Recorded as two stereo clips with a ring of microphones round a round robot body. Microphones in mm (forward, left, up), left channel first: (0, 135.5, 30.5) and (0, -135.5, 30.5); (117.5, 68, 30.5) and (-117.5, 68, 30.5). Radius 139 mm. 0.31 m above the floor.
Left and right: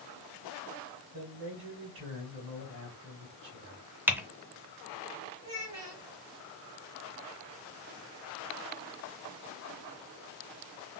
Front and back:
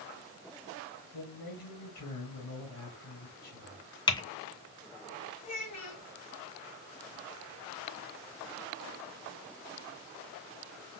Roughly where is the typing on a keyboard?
Ahead.